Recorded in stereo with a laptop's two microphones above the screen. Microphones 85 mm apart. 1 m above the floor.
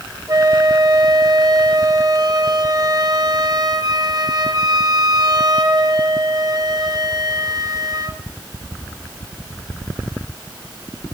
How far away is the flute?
About 0.9 m.